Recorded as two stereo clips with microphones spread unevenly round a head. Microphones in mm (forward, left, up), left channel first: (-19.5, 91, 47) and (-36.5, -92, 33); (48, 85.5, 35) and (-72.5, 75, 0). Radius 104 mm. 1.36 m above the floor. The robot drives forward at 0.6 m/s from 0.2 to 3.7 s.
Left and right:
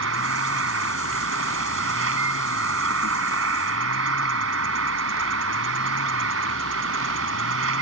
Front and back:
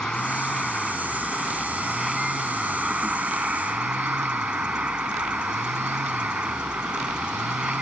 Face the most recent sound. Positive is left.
turn(degrees=-90)